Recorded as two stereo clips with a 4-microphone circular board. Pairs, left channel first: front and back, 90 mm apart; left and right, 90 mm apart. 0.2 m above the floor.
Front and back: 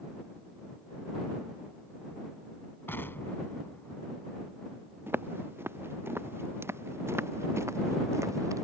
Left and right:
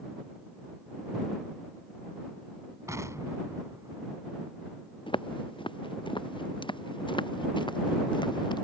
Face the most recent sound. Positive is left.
turn(degrees=125)